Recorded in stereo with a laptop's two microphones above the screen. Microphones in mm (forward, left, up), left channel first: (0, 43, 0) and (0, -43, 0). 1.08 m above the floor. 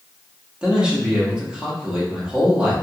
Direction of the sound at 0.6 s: 10° right (ahead or behind).